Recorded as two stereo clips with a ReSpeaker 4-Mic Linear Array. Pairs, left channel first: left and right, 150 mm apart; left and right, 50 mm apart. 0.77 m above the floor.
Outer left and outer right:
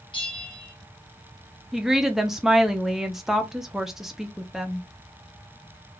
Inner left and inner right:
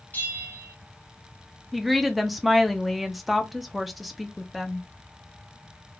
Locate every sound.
0.1 s a bell: 35° left (ahead or behind), 0.9 m
1.7 s a woman speaking: centre (ahead or behind), 0.5 m